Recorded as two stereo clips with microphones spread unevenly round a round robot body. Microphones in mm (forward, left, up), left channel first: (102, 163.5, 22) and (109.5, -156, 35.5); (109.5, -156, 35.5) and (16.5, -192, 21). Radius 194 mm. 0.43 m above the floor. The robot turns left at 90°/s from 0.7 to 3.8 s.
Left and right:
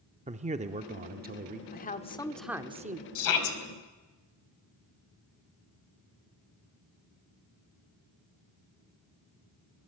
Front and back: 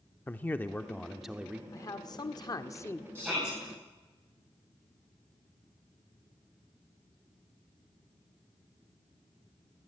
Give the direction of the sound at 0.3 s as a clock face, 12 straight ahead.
2 o'clock.